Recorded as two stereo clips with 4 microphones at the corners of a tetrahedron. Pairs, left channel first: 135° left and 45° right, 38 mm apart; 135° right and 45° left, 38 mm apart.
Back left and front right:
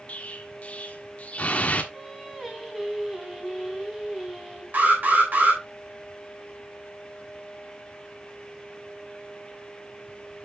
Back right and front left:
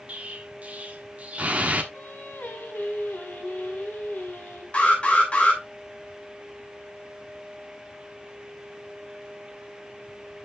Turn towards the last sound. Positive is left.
turn(degrees=-75)